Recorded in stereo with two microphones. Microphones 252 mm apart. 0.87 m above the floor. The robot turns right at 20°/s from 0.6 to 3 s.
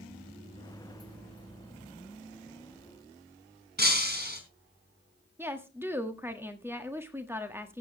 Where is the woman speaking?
10° right (ahead or behind), 1.6 m.